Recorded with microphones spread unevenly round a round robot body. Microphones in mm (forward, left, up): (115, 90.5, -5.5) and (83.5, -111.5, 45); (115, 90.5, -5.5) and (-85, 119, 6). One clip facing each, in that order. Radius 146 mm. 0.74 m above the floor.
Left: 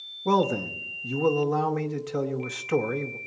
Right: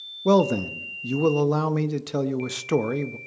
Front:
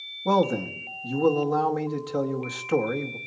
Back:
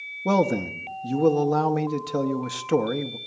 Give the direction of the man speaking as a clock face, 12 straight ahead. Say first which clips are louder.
Right 5 dB, back 1 dB; 4 o'clock.